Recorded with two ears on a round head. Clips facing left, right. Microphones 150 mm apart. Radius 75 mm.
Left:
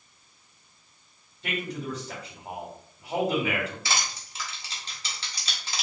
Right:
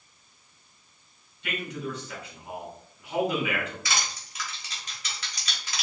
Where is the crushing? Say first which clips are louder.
Left 1 dB; 25° left (ahead or behind), 1.5 m.